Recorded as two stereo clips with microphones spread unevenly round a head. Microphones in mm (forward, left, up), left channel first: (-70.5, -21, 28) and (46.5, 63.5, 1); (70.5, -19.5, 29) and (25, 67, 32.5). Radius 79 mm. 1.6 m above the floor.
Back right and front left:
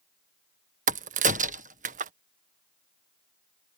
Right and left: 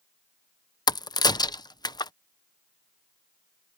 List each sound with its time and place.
0.9 s a crack: 15° right